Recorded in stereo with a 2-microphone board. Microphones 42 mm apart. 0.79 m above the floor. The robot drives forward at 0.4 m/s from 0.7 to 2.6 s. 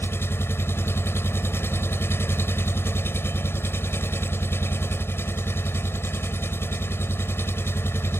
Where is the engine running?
80° left.